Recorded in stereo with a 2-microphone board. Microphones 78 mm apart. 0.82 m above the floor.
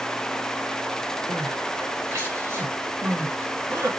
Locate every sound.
1.3 s crying: 40° right (ahead or behind), 1.4 m